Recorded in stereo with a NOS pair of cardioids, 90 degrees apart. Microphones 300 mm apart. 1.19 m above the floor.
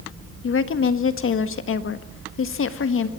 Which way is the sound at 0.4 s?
45° left.